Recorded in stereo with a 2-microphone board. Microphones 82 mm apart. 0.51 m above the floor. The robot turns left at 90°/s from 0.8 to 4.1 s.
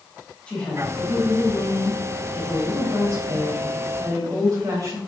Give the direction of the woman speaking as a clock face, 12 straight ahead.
6 o'clock.